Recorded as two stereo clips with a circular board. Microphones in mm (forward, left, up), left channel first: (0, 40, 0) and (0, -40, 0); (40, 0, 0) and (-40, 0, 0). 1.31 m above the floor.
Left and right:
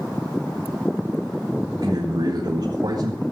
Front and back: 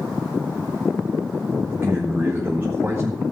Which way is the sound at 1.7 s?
110° right.